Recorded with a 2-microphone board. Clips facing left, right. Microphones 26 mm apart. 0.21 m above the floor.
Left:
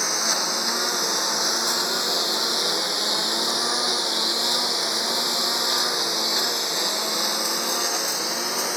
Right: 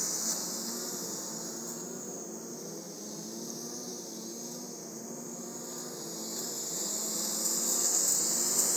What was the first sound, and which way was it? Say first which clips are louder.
A lawn mower: left 13 dB; 55° left (ahead or behind).